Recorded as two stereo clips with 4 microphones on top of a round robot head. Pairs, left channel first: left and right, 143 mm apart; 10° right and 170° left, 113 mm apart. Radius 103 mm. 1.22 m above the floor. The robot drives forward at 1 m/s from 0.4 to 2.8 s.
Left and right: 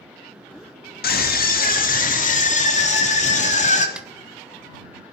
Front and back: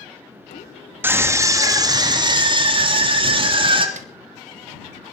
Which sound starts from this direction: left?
A scream, at 1.0 s.